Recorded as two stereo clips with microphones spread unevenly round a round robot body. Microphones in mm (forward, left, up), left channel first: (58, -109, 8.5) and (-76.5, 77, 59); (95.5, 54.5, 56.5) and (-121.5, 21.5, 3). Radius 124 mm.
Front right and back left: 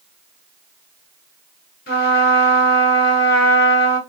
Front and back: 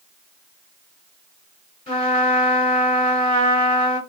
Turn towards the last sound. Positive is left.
turn(degrees=-65)